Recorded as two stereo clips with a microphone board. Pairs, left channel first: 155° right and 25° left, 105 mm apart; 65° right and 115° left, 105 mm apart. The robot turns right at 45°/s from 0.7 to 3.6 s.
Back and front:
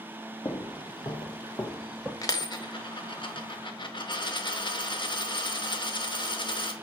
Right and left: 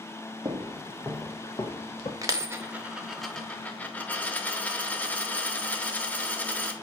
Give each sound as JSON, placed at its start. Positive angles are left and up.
{"t": 0.5, "sound": "footsteps", "azimuth_deg": 155, "distance_m": 0.8}
{"t": 2.2, "sound": "a dropped coin", "azimuth_deg": 160, "distance_m": 0.6}